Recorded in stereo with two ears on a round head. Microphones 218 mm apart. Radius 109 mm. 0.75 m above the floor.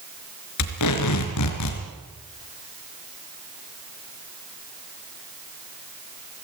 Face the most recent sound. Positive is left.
turn(degrees=80)